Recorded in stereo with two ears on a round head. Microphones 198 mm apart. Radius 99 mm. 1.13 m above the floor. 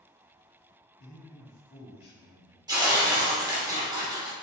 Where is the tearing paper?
20° right (ahead or behind), 1.2 m.